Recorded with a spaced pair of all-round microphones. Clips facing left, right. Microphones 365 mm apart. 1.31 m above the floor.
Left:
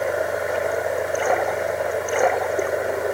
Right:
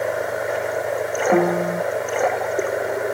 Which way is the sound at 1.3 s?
85° right.